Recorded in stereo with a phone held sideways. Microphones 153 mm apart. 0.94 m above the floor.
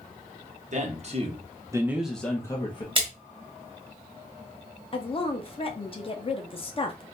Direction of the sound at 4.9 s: 35° left (ahead or behind).